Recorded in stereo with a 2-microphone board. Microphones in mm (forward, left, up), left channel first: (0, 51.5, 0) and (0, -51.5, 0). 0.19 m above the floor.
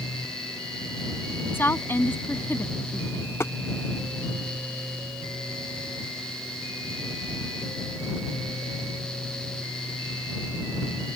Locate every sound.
1.5 s a woman speaking: 20° left (ahead or behind)
3.4 s tapping: 25° left (ahead or behind)